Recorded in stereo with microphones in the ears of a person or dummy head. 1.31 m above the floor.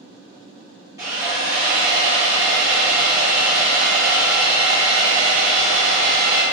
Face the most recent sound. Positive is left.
turn(degrees=-15)  # may be behind; listen again after turning